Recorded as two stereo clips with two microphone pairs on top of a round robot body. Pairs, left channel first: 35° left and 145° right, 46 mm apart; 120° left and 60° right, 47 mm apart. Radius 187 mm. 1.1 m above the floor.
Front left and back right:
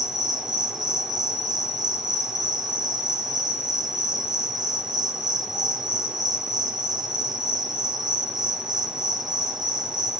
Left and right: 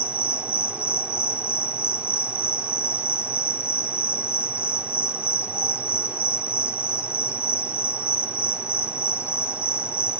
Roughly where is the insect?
Right.